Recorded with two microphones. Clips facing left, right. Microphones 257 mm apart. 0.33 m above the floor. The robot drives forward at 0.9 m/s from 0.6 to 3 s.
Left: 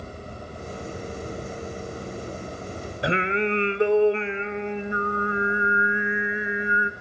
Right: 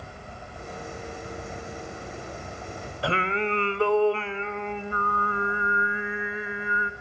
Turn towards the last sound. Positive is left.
turn(degrees=20)  # may be behind; listen again after turning